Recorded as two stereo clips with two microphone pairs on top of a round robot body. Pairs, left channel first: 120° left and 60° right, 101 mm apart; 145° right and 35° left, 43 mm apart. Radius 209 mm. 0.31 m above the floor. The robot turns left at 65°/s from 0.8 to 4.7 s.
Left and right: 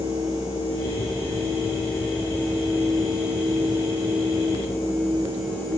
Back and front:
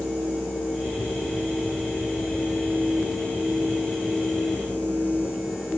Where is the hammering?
I don't hear hammering.